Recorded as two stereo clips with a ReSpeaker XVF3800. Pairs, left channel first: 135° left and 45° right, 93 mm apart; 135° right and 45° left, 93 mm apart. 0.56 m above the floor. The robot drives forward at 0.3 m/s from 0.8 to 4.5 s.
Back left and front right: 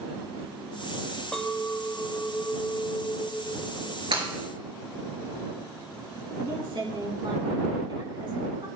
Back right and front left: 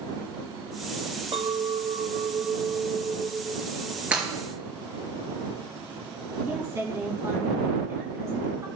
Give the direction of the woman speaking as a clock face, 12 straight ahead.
12 o'clock.